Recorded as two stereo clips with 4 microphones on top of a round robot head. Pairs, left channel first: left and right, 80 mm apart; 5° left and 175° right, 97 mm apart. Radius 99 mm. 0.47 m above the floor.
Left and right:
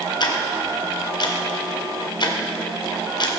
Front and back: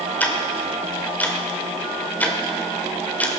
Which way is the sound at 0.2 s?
75° left.